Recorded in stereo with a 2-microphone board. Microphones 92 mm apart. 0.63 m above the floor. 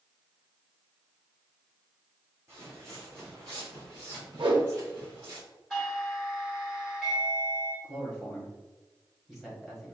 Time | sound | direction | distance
2.5 | footsteps | 30° right (ahead or behind) | 1.9 m
4.4 | a whoosh | 75° right (ahead or behind) | 1.1 m
5.7 | a doorbell | centre (ahead or behind) | 1.9 m
7.8 | a man speaking | 5° right (ahead or behind) | 1.4 m